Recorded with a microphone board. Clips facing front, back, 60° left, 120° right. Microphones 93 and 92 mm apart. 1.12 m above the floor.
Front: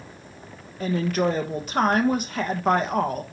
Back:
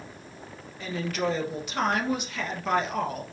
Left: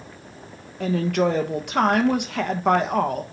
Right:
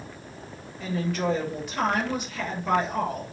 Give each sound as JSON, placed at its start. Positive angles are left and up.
{"t": 0.8, "sound": "a woman speaking", "azimuth_deg": 45, "distance_m": 1.1}